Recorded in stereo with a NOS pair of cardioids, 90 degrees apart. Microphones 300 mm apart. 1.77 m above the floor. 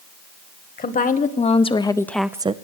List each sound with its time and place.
0.8 s a woman speaking: 30° left, 1.5 m; by 2.5 s 25° right, 0.5 m